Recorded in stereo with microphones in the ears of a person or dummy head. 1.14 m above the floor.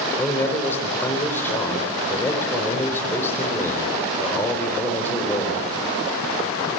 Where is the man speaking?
15° left (ahead or behind), 4 m.